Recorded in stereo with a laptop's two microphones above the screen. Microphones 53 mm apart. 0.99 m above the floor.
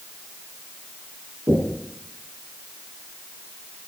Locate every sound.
1.5 s knocking: 40° right (ahead or behind), 10 m